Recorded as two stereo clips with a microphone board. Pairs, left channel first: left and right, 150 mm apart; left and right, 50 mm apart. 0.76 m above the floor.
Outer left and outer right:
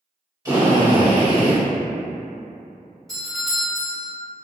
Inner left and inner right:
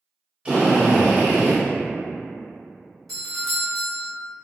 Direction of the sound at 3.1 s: Centre (ahead or behind).